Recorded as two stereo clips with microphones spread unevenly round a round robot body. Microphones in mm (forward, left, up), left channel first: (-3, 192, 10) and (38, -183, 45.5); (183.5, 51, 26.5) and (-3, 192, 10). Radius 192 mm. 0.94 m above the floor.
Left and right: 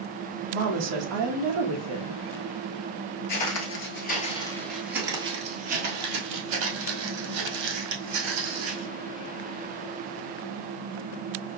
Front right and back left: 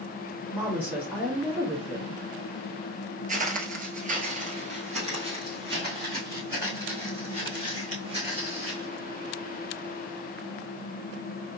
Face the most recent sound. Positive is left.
turn(degrees=-125)